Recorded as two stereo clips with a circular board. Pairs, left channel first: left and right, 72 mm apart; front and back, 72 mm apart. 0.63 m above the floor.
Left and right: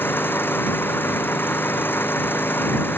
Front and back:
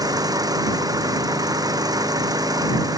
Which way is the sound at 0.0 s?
150° left.